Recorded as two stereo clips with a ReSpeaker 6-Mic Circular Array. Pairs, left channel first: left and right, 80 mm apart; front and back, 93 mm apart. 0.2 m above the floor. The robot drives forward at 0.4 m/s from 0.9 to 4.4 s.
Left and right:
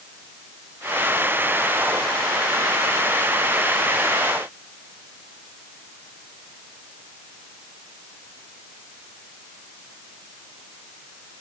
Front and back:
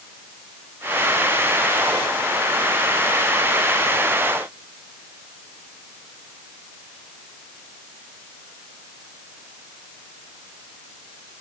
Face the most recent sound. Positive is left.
No sound to turn to.